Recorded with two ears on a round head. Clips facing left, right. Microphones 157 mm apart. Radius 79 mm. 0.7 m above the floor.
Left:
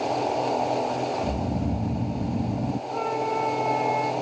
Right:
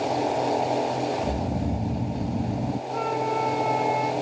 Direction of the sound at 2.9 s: Centre (ahead or behind).